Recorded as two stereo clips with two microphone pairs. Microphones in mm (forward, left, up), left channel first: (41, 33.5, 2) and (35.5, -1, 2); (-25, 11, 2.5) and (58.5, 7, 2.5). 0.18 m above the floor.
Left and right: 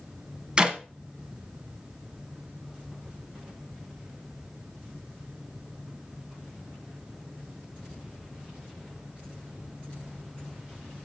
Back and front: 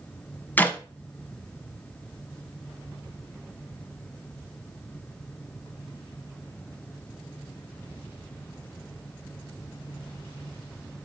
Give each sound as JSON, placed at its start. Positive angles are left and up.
{"t": 0.6, "sound": "a clap", "azimuth_deg": -135, "distance_m": 1.1}